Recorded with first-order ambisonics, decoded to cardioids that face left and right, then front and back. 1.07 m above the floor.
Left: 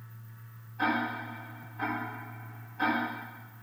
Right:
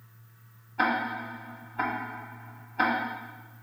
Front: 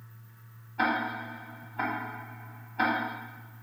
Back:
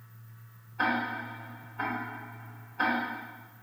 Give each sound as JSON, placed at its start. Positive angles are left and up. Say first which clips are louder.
{"t": 0.8, "sound": "ticking", "louder": "right 3 dB, front 1 dB", "azimuth_deg": -50, "distance_m": 2.0}